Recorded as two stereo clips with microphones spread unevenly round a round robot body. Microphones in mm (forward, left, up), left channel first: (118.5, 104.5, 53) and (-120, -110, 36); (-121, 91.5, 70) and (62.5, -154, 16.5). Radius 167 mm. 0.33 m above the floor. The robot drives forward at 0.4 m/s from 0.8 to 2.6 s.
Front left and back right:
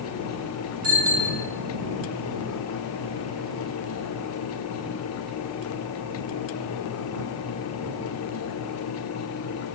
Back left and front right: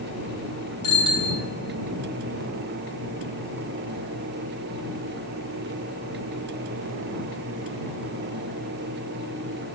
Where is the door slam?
I don't hear a door slam.